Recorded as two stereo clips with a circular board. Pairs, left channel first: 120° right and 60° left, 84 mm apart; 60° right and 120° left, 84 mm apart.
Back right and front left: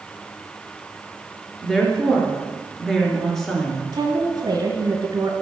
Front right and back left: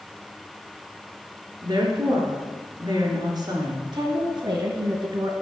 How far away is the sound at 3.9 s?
About 2 m.